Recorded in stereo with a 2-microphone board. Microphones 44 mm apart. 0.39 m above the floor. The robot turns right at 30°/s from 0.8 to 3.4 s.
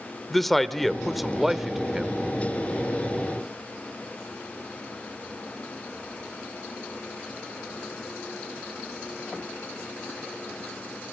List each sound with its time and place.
0.3 s a man speaking: 5° left (ahead or behind), 0.8 m; by 2.2 s 15° right (ahead or behind), 0.8 m